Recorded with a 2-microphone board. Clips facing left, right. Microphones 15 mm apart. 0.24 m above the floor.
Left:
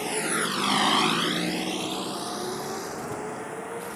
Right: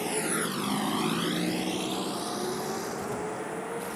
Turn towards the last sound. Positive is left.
turn(degrees=5)  # may be behind; listen again after turning